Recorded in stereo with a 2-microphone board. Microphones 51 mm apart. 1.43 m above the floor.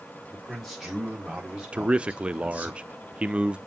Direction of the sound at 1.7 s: 20° right (ahead or behind).